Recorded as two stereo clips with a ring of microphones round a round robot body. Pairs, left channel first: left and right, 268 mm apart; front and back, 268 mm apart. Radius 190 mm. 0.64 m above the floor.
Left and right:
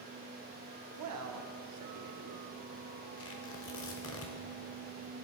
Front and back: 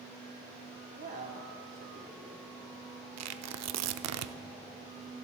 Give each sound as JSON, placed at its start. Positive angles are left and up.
{"t": 0.9, "sound": "a man speaking", "azimuth_deg": -115, "distance_m": 1.1}
{"t": 3.2, "sound": "tearing paper", "azimuth_deg": 150, "distance_m": 0.6}